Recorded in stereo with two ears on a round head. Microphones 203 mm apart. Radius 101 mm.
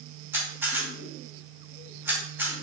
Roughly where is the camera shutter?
Centre.